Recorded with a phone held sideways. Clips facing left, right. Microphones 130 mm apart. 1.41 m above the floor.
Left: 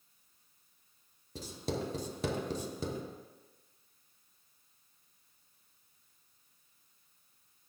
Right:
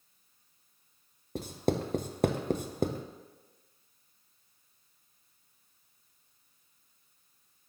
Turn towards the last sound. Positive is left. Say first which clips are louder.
# right 7 dB
turn(degrees=-65)  # may be behind; listen again after turning